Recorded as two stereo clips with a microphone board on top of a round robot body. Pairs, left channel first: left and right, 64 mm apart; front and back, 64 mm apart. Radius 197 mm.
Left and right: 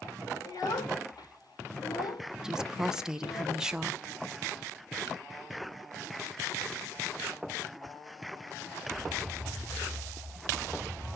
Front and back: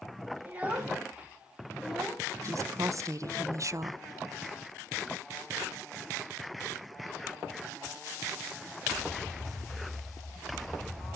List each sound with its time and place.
0.4 s a child speaking: 115° left, 2 m; by 3.4 s 50° left, 1.0 m
2.4 s a woman speaking: 170° right, 0.8 m